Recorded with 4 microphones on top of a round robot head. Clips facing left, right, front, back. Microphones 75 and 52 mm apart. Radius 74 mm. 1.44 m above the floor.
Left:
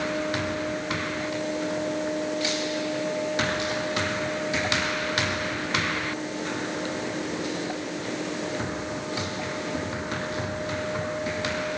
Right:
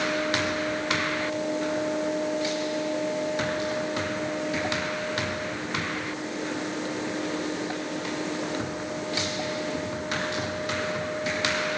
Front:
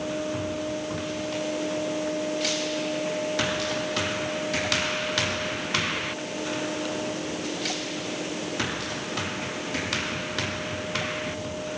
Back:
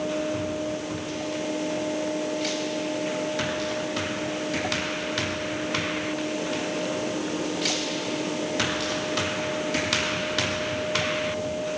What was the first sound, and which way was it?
Only background noise.